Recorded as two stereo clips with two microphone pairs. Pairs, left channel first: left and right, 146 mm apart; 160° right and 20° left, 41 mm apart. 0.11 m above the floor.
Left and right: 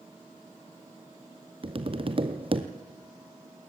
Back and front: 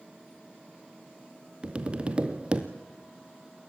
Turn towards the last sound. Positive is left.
turn(degrees=-40)